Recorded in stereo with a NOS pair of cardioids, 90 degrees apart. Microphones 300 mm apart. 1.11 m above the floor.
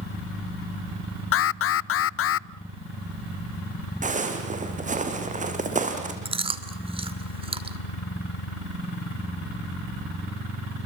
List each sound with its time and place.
1.3 s an alarm: 50° left, 0.5 m
4.0 s footsteps: 25° right, 3.5 m
6.2 s chewing: 20° right, 2 m